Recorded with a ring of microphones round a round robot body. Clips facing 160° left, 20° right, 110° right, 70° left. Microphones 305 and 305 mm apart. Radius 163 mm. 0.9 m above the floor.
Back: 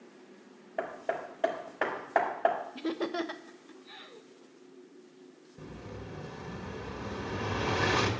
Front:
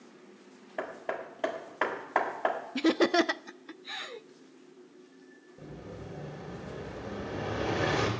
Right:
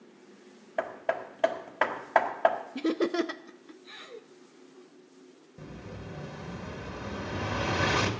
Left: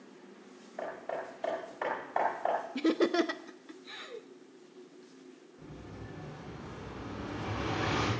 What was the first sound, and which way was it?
Hammering, 105° right.